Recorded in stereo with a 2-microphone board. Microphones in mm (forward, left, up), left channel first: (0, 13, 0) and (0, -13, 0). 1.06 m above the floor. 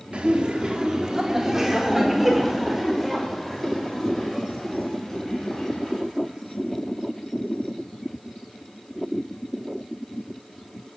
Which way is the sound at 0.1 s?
45° right (ahead or behind).